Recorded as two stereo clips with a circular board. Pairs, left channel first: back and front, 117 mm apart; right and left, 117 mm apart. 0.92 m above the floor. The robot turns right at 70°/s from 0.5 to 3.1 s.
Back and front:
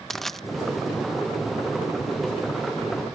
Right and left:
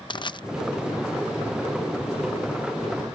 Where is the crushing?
95° right.